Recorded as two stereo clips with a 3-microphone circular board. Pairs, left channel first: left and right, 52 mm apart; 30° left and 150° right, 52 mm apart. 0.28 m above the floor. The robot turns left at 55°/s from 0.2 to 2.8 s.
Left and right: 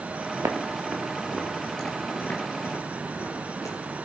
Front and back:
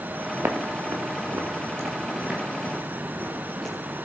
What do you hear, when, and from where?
0.4 s footsteps: 110° right, 3.5 m; by 3.8 s 110° left, 7 m